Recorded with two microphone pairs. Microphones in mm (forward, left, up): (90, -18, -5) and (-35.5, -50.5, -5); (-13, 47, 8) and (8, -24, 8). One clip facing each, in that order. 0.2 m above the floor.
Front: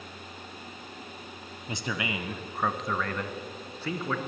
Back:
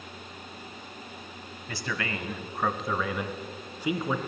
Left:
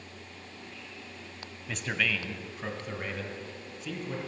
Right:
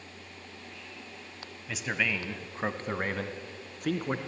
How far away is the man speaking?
About 1.0 m.